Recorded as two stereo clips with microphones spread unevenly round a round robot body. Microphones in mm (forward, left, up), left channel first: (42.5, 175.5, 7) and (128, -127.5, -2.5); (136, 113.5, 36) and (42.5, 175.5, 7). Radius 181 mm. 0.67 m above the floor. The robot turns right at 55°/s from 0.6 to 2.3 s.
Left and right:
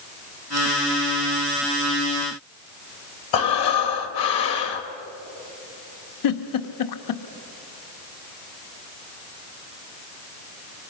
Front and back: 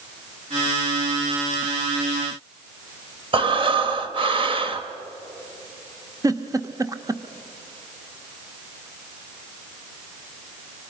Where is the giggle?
85° left, 1.0 m.